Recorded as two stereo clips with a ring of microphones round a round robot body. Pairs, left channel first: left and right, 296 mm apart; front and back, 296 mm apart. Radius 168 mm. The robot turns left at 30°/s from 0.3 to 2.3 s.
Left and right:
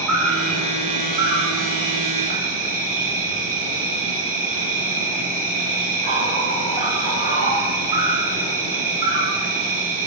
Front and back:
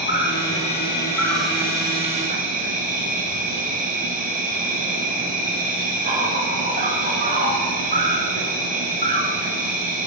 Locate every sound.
0.0 s an insect: 55° right, 5.5 m; by 10.1 s 115° right, 5.5 m